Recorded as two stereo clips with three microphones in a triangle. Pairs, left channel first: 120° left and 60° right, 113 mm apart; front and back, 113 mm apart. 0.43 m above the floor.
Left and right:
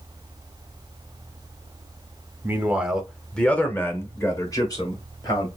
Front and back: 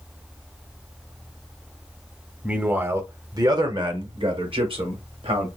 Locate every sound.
2.4 s a man speaking: 110° right, 1.0 m; by 5.5 s 165° left, 1.9 m